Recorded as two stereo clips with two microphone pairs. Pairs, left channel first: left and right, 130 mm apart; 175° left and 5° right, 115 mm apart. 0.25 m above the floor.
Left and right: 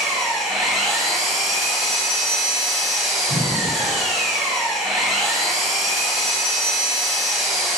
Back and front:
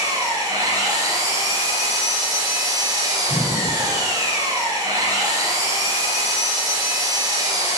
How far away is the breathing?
About 2.5 m.